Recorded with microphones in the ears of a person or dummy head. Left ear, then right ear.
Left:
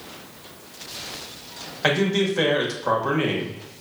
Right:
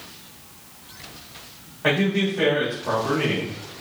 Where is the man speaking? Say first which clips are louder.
Left 1 dB; 75° left (ahead or behind), 1.2 m.